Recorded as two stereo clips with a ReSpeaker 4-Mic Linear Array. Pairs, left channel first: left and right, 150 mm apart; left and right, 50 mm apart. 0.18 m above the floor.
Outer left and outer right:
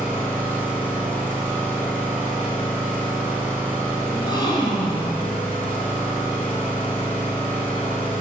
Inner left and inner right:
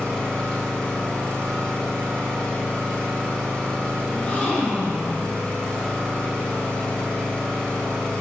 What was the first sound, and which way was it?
An engine running, 10° left (ahead or behind).